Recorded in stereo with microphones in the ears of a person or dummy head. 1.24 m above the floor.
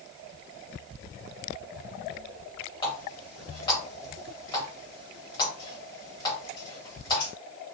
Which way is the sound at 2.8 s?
25° left (ahead or behind).